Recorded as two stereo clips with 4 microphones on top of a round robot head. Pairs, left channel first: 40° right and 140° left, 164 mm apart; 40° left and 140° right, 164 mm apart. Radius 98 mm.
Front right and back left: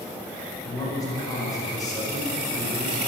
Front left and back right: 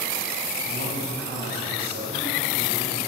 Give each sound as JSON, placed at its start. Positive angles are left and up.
{"t": 0.6, "sound": "a man speaking", "azimuth_deg": -110, "distance_m": 5.0}